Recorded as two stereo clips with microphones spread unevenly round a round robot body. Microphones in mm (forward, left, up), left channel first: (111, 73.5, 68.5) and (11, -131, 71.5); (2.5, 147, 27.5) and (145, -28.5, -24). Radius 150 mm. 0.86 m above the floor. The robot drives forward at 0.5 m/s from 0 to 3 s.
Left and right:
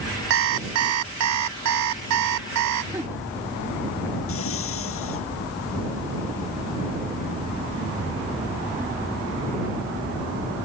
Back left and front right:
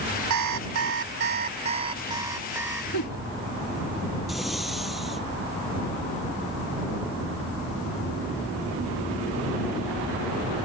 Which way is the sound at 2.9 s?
160° left.